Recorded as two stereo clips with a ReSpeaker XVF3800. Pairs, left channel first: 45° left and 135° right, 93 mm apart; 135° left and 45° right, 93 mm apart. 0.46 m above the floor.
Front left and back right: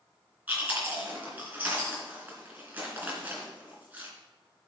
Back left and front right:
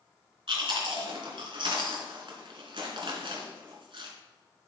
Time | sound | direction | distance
0.5 | chewing | 65° right | 2.5 m